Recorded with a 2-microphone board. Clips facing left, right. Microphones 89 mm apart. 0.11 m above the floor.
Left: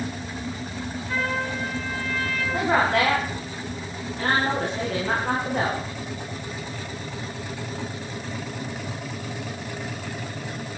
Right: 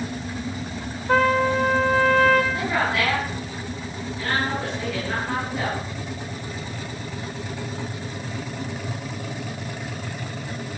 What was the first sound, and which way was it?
A trumpet, 75° right (ahead or behind).